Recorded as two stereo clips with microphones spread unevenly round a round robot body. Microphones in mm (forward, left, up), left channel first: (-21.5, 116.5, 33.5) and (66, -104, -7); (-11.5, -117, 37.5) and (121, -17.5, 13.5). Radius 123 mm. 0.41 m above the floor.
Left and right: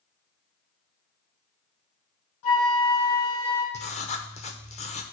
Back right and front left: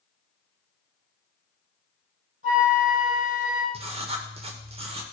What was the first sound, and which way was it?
A flute, 100° left.